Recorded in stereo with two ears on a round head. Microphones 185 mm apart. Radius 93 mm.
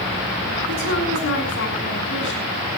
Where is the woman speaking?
65° left (ahead or behind), 7.5 m.